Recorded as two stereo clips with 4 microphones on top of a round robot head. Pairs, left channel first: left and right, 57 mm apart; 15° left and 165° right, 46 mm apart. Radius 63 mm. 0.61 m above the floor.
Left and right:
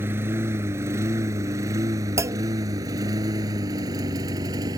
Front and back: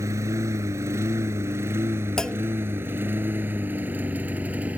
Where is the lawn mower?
145° right; by 4.8 s 105° right.